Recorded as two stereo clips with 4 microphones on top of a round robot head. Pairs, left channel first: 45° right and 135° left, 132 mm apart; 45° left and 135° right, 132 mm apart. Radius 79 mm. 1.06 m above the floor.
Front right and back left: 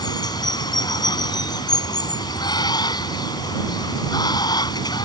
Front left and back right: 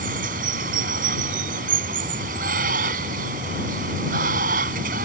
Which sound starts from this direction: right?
Running water, at 0.0 s.